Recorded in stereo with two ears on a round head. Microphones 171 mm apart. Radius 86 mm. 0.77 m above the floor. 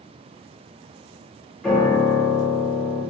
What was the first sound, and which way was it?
A piano, 5° left (ahead or behind).